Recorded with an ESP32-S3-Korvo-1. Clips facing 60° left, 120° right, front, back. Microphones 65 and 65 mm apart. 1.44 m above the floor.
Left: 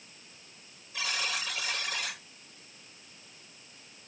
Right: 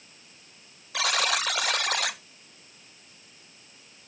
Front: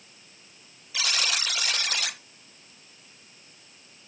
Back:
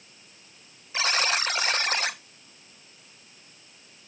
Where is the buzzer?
125° right, 0.7 m.